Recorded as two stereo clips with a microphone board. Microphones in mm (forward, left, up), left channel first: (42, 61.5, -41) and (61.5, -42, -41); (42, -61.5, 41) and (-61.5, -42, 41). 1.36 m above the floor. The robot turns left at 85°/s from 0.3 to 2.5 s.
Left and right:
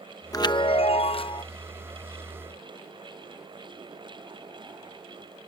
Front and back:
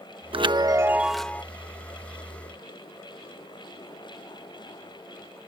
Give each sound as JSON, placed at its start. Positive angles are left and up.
{"t": 0.3, "sound": "a chime", "azimuth_deg": 150}